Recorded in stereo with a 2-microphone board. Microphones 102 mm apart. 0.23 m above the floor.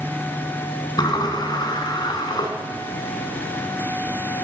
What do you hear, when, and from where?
1.0 s a sliding door: 45° left (ahead or behind), 1.1 m